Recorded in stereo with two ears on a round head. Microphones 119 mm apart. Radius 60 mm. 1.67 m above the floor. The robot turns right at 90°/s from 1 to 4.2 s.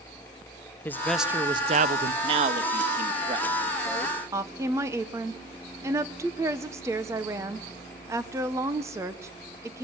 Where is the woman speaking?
20° right (ahead or behind), 1.4 m.